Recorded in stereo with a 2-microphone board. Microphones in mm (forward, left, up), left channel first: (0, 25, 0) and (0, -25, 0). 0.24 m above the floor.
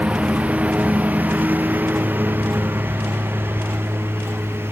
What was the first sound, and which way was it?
A lawn mower, 20° right (ahead or behind).